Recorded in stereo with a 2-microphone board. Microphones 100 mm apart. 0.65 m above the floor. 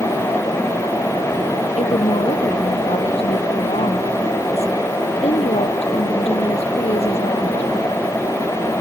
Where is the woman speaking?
90° left.